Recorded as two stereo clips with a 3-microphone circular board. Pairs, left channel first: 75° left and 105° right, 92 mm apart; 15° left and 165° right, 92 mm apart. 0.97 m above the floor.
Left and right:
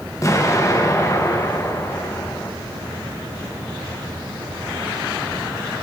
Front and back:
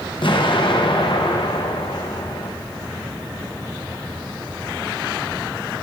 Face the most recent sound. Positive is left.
turn(degrees=20)